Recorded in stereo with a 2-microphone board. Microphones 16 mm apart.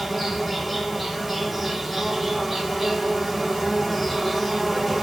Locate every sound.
0.0 s an insect: 5° left (ahead or behind), 2 m